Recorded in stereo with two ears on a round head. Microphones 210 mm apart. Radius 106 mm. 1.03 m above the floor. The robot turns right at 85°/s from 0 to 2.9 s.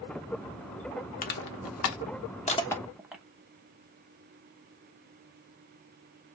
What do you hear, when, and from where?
1.2 s crushing: 35° left (ahead or behind), 0.8 m; by 3.2 s 5° right (ahead or behind), 0.8 m